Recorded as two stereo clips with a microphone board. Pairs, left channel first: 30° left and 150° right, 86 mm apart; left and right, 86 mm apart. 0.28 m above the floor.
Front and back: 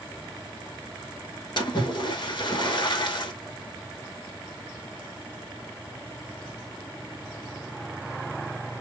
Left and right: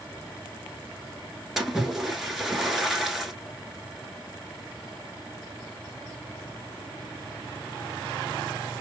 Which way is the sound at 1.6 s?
5° right.